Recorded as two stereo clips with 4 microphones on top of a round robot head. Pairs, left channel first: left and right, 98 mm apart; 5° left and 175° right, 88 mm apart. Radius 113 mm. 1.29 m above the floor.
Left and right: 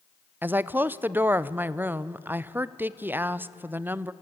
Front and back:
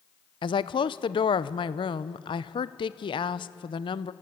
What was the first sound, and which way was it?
A woman speaking, 20° right.